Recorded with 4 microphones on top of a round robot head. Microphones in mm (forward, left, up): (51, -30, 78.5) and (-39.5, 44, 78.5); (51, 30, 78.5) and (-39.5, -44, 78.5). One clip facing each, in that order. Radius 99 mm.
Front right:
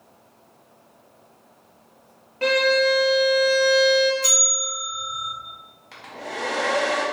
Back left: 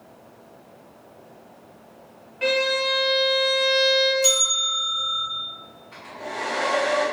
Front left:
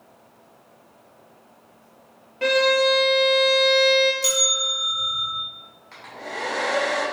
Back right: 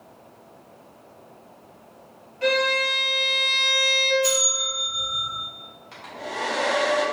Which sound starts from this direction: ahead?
A violin, at 2.4 s.